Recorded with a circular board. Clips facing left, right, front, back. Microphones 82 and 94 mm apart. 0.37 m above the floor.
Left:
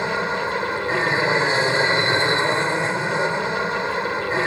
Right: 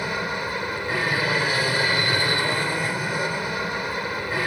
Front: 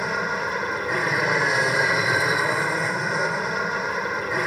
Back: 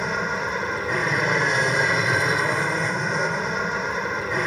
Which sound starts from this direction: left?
An aircraft, at 0.0 s.